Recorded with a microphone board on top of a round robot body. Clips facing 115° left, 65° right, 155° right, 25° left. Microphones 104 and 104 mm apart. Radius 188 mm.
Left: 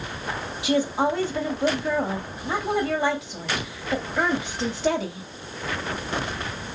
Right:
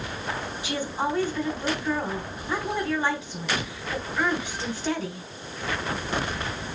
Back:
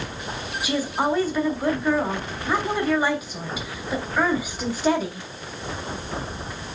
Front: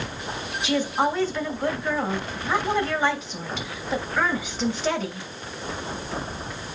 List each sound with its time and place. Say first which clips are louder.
0.6 s a woman speaking: left 7 dB, front 1 dB; 120° left, 3 m